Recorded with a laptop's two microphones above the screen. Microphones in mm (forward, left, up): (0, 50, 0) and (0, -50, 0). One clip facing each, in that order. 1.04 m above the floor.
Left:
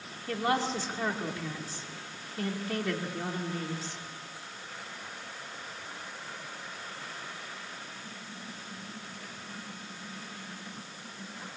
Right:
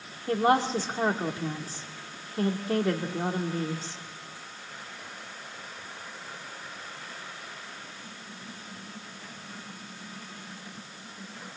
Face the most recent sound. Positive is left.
turn(degrees=-35)  # may be behind; listen again after turning